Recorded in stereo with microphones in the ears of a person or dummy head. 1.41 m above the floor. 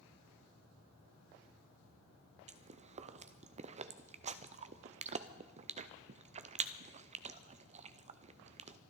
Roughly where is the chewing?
Right.